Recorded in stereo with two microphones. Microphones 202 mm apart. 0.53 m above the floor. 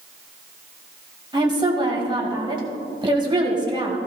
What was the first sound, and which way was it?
A woman speaking, 20° right (ahead or behind).